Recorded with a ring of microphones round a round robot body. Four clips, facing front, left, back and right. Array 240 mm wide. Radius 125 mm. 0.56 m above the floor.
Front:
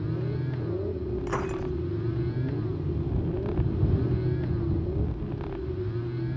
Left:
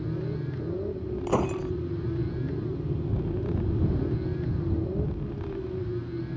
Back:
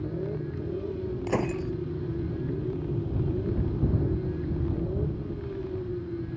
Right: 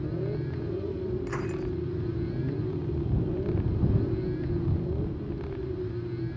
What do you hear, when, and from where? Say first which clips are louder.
1.3 s breaking glass: left 5 dB, back 4 dB; 125° left